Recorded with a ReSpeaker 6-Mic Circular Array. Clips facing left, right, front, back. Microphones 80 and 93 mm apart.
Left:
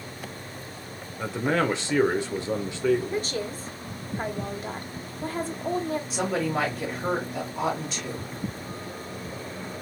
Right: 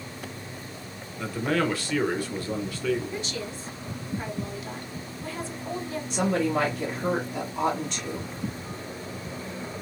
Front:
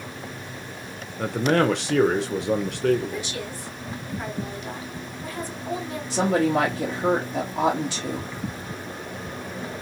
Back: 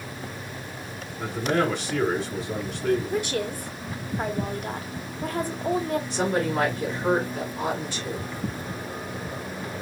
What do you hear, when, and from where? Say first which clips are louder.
1.2 s a man speaking: left 1 dB, front 3 dB; 20° left, 0.8 m
3.1 s a woman speaking: left 4 dB, back 5 dB; 135° left, 0.8 m
6.1 s a woman speaking: right 4 dB, front 7 dB; straight ahead, 1.4 m